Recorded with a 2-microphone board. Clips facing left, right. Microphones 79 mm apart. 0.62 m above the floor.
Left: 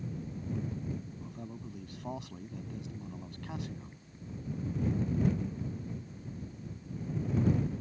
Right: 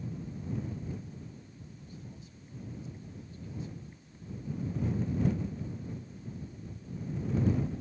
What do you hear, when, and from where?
1.2 s a man speaking: 80° left